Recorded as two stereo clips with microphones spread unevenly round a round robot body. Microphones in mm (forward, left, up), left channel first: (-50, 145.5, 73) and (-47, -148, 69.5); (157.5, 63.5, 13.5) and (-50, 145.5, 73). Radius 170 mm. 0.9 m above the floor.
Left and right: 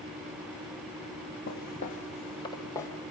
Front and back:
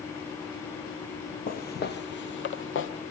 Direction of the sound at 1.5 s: 35° left.